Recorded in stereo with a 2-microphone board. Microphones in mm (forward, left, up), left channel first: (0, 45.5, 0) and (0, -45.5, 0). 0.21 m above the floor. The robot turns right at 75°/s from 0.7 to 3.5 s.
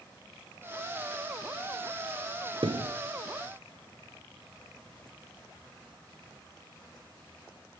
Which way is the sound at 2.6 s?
75° right (ahead or behind).